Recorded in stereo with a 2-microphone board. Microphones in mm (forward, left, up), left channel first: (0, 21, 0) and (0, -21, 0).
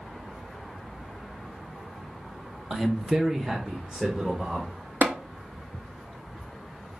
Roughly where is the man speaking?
Centre.